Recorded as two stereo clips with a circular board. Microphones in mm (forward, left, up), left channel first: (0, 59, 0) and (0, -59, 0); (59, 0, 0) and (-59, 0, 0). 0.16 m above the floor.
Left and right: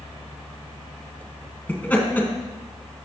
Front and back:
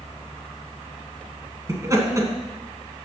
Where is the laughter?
150° left, 1.7 m.